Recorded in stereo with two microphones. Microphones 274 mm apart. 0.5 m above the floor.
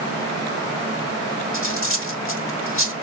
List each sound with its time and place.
1.5 s cutlery clinking: 50° left (ahead or behind), 0.9 m